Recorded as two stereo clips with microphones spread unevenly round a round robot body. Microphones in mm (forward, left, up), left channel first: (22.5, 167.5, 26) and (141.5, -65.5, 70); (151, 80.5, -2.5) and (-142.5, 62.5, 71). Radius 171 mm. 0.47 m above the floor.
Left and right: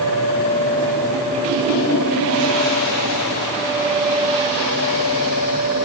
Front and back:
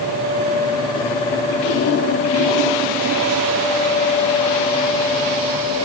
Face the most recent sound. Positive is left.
No sound to turn to.